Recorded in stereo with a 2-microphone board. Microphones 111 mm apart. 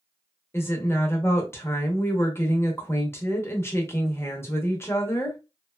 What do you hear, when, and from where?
0.5 s a woman speaking: 20° left (ahead or behind), 0.8 m